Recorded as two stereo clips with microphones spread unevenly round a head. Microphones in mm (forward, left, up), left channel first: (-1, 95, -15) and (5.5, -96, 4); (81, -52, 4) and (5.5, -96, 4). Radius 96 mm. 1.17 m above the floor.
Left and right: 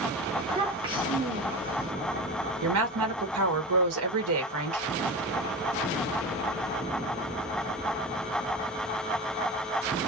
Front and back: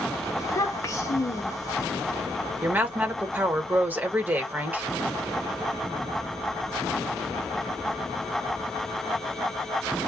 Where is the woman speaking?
80° right, 1.2 m.